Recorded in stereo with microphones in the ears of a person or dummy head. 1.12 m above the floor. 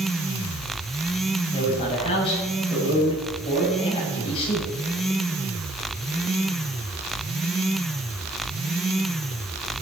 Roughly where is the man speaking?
Left.